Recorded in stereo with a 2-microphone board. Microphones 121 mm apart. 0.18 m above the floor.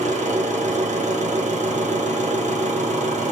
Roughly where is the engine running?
Right.